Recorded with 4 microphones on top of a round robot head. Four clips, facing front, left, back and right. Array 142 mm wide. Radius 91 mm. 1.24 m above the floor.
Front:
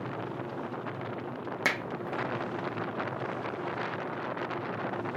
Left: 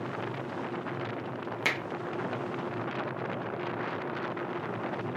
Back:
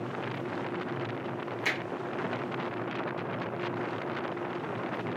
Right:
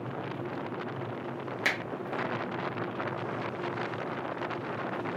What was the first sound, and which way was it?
A finger snap, 30° left.